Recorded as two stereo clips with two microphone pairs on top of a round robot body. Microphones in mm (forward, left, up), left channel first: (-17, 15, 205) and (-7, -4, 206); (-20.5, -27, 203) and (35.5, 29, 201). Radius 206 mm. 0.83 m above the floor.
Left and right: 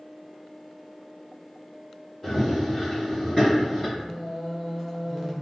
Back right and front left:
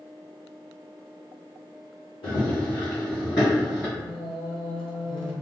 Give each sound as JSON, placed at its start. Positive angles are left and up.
{"t": 2.2, "sound": "running footsteps", "azimuth_deg": -145, "distance_m": 1.7}
{"t": 4.0, "sound": "singing", "azimuth_deg": -145, "distance_m": 0.5}